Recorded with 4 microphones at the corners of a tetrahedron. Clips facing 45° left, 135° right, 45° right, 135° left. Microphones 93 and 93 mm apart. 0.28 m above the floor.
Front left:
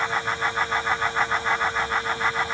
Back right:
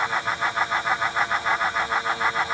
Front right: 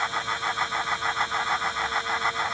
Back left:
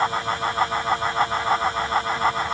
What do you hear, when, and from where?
Only background noise.